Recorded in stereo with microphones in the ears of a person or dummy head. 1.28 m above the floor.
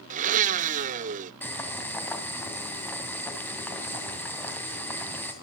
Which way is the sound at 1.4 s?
10° left (ahead or behind).